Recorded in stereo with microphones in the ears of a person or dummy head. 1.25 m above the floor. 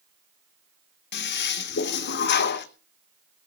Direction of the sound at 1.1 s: 55° left (ahead or behind).